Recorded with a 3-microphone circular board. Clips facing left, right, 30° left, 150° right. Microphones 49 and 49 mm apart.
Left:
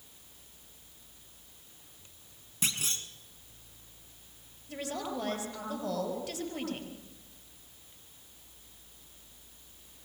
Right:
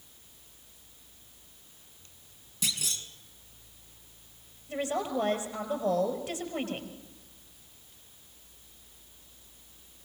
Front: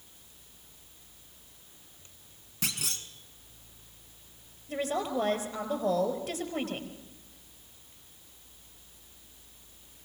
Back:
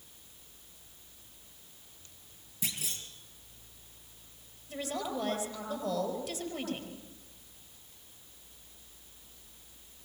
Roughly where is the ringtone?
I don't hear a ringtone.